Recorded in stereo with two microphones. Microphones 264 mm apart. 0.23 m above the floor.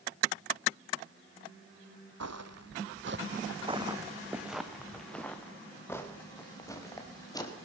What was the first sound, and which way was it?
Footsteps, 70° right (ahead or behind).